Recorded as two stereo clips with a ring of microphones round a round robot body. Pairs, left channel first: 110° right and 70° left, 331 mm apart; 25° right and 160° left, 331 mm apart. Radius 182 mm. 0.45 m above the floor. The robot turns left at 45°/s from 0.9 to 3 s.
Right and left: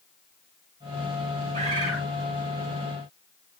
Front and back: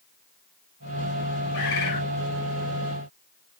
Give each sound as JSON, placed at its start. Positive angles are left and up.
{"t": 1.5, "sound": "a bird", "azimuth_deg": 0, "distance_m": 2.5}